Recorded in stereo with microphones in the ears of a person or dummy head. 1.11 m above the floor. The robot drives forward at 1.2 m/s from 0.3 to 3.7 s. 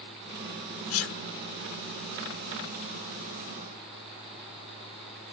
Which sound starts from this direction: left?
A sneeze, at 0.9 s.